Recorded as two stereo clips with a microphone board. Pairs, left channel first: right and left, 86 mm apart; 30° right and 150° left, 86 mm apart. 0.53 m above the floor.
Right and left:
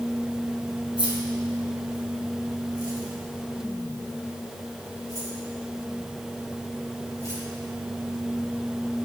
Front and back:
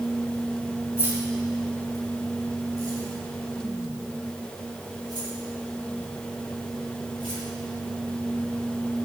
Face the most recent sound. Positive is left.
turn(degrees=140)